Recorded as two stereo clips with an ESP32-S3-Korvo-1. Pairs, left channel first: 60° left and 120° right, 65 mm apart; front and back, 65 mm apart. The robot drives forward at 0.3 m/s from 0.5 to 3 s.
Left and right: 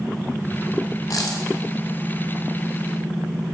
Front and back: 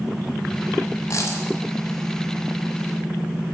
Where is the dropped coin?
35° left, 1.7 m.